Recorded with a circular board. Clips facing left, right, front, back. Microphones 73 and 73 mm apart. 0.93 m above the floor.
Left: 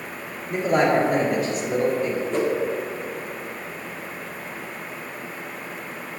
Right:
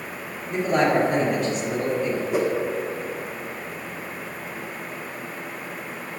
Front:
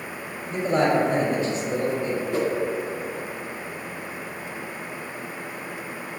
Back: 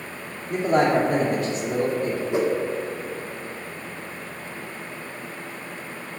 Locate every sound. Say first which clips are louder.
0.5 s a man speaking: left 1 dB, back 2 dB; 175° left, 2 m
2.3 s a whoosh: right 1 dB, back 3 dB; 150° right, 0.9 m